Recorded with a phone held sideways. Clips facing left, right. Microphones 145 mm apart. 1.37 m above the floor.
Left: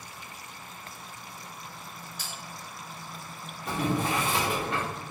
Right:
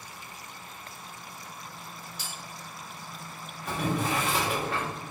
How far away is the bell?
About 1.4 m.